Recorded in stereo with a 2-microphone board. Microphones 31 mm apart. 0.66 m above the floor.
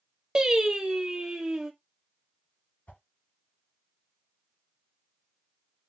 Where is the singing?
25° right (ahead or behind), 1.3 m.